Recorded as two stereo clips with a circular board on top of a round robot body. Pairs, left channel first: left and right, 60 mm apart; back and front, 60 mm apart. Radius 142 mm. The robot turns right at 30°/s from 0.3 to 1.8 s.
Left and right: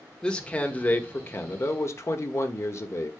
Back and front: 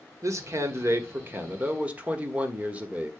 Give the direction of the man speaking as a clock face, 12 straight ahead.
12 o'clock.